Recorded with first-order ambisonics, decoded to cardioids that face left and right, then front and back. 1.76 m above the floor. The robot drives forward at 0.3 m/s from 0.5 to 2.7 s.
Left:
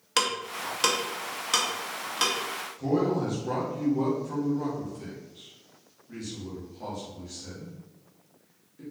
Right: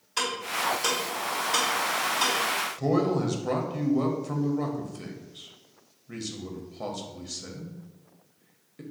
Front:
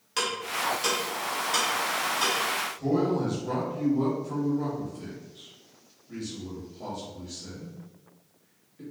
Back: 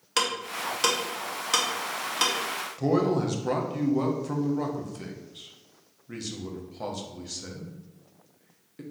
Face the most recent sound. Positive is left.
turn(degrees=-140)